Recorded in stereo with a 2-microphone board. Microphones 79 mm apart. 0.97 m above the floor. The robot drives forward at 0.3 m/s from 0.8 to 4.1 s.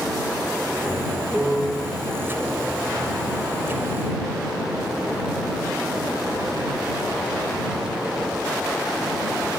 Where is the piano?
60° left (ahead or behind), 1.3 m; by 1.9 s 65° left (ahead or behind), 1.2 m.